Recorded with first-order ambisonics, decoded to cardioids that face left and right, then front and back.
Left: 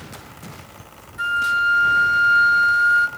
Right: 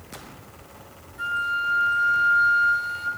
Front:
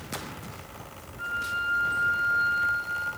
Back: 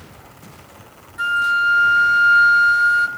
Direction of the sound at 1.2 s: 150° left.